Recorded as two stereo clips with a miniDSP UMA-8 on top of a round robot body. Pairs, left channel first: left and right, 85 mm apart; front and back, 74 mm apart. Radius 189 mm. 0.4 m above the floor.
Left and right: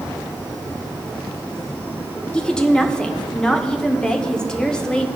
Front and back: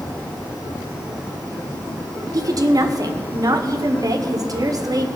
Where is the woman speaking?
170° left, 1.8 m.